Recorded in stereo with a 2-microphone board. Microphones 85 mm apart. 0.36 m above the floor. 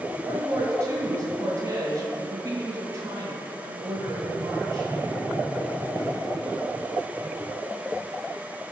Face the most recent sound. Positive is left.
turn(degrees=-40)  # may be behind; listen again after turning